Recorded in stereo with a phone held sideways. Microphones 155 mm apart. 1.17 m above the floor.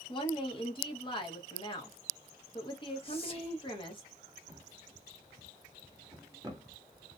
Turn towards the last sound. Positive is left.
turn(degrees=-20)  # may be behind; listen again after turning